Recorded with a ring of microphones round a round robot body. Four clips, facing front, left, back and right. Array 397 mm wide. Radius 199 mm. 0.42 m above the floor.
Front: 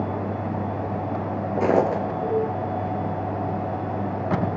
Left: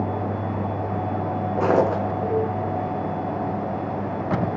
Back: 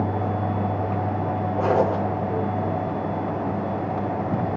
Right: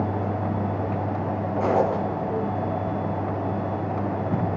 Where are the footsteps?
30° left, 1.9 m.